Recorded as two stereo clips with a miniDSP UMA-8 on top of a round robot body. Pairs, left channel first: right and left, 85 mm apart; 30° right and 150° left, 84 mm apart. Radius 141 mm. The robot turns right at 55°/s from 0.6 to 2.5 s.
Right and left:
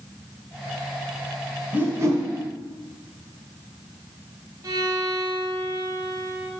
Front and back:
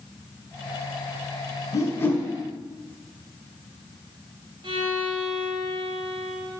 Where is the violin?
140° left, 2 m.